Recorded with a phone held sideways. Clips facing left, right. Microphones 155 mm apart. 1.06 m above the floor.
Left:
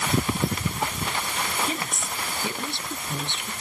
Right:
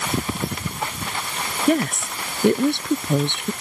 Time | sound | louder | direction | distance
1.7 | a woman speaking | right 12 dB | 65° right (ahead or behind) | ?